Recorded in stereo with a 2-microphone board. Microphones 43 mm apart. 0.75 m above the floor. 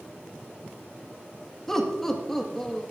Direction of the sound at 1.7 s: 10° left (ahead or behind).